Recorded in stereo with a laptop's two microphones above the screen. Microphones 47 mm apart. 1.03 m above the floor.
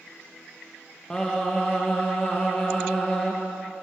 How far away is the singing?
About 1.3 m.